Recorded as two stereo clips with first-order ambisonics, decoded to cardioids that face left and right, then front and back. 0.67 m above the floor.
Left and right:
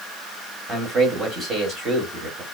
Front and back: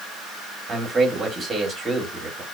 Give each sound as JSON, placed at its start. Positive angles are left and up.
{"t": 0.7, "sound": "a man speaking", "azimuth_deg": -125, "distance_m": 1.0}